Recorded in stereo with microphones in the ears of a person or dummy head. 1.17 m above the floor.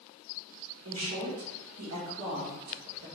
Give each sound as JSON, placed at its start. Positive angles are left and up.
{"t": 0.8, "sound": "a woman speaking", "side_deg": -70, "distance_m": 1.3}